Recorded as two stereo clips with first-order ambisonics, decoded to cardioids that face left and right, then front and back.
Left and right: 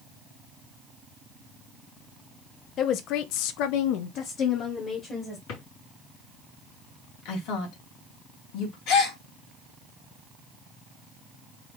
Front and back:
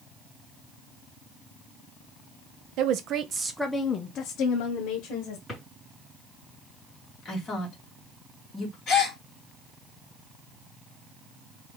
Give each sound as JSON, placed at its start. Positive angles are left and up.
{"t": 2.8, "sound": "a woman speaking", "azimuth_deg": 145, "distance_m": 0.8}
{"t": 5.5, "sound": "a drawer", "azimuth_deg": 90, "distance_m": 3.0}
{"t": 7.2, "sound": "a woman speaking", "azimuth_deg": 65, "distance_m": 2.0}
{"t": 8.9, "sound": "a gasp", "azimuth_deg": 60, "distance_m": 2.5}